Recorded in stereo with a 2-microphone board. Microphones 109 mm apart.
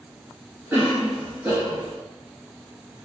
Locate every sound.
0.7 s a cough: 10° right (ahead or behind), 1.9 m